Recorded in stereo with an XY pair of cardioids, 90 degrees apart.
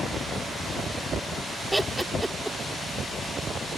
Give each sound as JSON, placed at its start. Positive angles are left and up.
{"t": 1.7, "sound": "laughter", "azimuth_deg": -10}